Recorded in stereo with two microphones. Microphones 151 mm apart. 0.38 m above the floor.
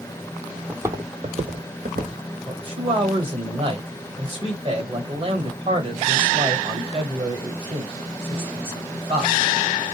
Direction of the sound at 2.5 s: 40° right (ahead or behind).